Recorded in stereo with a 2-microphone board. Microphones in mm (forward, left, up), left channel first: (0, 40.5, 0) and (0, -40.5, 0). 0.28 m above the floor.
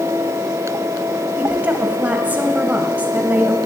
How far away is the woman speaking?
About 1.6 m.